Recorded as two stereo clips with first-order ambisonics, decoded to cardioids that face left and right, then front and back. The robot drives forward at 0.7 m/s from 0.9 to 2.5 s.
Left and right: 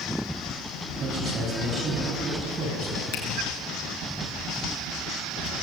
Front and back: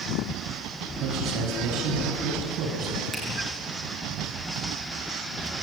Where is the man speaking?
150° right, 4.5 m; by 3.0 s 155° right, 5.5 m.